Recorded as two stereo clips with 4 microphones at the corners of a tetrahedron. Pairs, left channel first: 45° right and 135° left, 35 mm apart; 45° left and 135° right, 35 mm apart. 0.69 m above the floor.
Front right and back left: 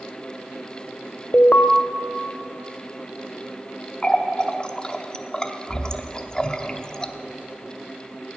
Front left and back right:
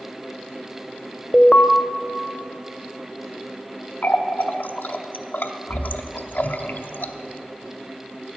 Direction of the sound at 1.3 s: 5° right.